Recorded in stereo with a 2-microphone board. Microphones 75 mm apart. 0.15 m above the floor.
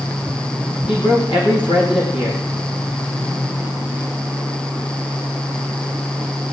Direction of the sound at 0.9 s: 80° left.